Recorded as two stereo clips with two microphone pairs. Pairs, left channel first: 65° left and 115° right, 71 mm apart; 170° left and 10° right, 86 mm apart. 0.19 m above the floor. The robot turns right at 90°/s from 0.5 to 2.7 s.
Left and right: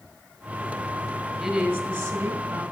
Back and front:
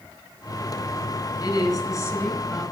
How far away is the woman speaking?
About 1.4 m.